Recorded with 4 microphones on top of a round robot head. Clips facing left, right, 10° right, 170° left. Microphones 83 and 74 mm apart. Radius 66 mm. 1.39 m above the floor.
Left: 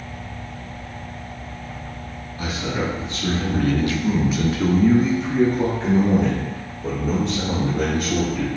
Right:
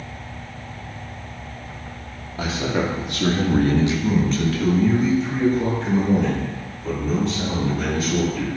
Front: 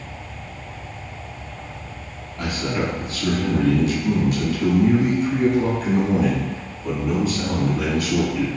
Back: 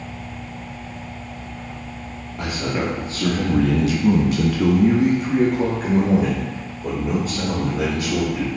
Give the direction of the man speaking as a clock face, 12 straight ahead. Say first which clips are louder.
Right 3 dB, even; 4 o'clock.